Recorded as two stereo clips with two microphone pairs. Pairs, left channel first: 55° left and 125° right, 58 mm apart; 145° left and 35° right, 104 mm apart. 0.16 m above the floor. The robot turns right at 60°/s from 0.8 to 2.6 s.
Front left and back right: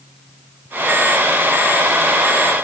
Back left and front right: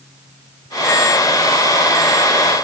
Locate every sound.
Only background noise.